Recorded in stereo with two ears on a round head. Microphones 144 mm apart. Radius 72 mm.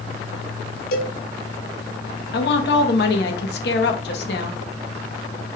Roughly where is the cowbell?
Left.